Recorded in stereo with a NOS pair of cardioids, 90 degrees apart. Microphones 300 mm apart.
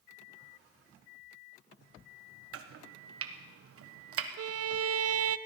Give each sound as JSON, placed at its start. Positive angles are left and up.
{"t": 2.5, "sound": "chopping", "azimuth_deg": -50, "distance_m": 1.4}
{"t": 4.4, "sound": "a violin", "azimuth_deg": -50, "distance_m": 0.7}